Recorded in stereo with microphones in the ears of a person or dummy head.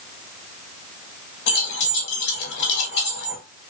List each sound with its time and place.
1.5 s keys jangling: 60° left (ahead or behind), 1.4 m